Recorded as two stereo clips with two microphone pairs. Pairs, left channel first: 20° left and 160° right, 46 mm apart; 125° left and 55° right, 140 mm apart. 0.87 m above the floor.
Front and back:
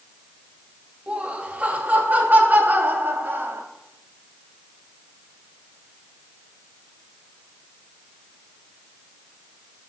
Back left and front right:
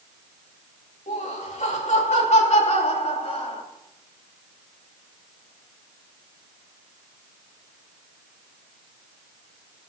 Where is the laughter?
135° left, 4 m; by 3.6 s 165° left, 5 m.